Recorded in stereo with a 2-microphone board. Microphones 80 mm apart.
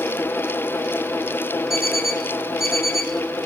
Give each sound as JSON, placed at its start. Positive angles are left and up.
{"t": 1.7, "sound": "an alarm clock", "side_deg": -5, "distance_m": 7.5}